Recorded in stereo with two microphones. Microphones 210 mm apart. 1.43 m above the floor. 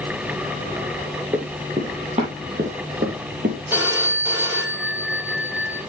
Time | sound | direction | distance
1.3 | running footsteps | 20° right (ahead or behind) | 3 m
3.7 | a phone ringing | 10° right (ahead or behind) | 4.5 m